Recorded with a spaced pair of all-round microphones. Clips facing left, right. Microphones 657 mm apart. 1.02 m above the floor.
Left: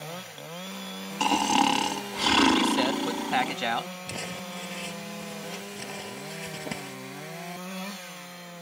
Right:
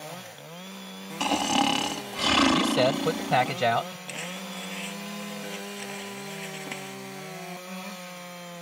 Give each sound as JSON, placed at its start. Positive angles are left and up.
{"t": 1.2, "sound": "snoring", "side_deg": -10}
{"t": 2.5, "sound": "a man speaking", "side_deg": -75}
{"t": 4.1, "sound": "crumpling", "side_deg": 65}